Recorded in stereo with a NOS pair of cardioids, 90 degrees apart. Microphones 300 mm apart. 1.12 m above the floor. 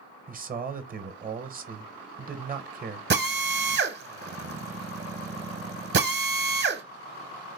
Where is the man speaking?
30° right, 0.7 m.